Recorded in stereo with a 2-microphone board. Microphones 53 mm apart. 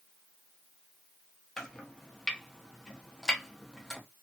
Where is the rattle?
No rattle in this recording.